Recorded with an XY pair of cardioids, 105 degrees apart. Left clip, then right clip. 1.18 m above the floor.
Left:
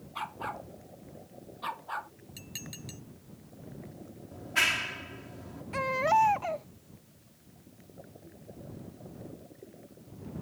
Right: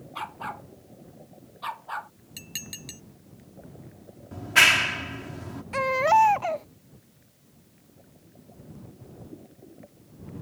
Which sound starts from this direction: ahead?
A dog barking, at 0.1 s.